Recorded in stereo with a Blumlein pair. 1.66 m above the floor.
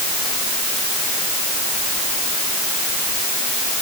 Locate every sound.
Only background noise.